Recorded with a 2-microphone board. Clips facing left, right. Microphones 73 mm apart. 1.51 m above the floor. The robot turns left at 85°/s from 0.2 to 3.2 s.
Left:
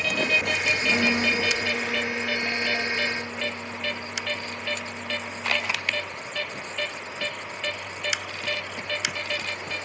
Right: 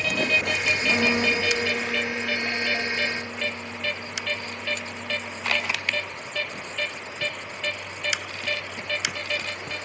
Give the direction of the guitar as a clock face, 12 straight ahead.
4 o'clock.